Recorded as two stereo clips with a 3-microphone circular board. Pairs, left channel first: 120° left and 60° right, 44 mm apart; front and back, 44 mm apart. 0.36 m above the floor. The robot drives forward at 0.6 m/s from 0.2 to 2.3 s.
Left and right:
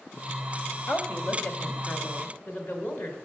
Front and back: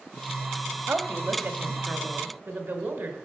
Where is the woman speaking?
150° left, 1.4 m; by 3.1 s 160° left, 2 m.